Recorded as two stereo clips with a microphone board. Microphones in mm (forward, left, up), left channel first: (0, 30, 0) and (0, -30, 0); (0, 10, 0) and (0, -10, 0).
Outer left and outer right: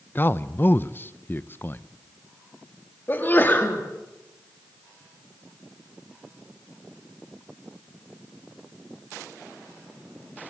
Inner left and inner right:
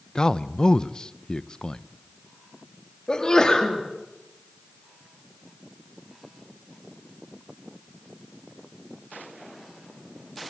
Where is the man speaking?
35° left (ahead or behind), 0.6 m.